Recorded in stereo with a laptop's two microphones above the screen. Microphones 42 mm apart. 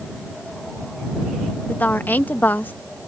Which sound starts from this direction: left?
A woman speaking, at 1.7 s.